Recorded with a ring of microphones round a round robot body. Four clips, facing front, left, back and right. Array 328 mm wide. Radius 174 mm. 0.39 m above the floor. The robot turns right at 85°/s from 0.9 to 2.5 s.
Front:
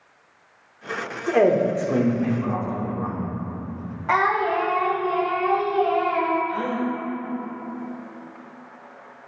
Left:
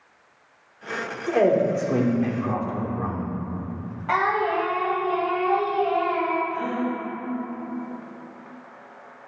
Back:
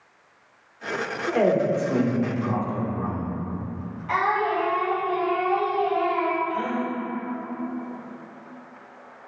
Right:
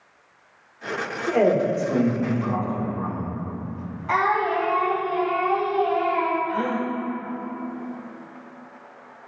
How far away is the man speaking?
About 1.2 m.